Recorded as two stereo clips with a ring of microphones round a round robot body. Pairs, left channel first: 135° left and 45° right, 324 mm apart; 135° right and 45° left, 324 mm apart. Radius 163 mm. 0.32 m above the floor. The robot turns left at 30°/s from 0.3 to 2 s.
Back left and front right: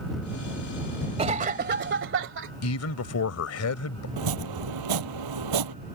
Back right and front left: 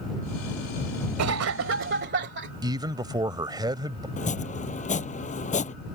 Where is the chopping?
65° right.